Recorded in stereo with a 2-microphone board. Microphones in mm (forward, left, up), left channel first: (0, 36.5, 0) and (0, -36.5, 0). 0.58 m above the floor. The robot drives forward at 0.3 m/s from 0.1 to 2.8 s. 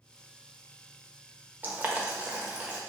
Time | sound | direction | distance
1.6 | boiling | 25° right (ahead or behind) | 0.6 m